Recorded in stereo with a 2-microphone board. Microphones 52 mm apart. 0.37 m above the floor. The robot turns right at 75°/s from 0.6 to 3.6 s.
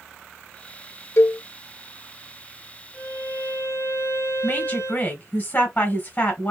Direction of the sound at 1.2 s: 55° left (ahead or behind).